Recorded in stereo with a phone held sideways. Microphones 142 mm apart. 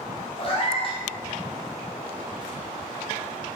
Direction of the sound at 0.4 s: 40° left (ahead or behind).